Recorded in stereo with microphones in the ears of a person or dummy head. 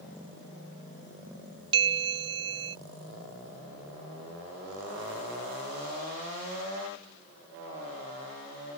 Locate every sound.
1.7 s a bell: 25° right (ahead or behind)